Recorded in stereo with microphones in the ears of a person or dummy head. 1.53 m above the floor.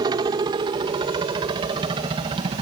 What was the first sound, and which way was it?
A helicopter, 25° right (ahead or behind).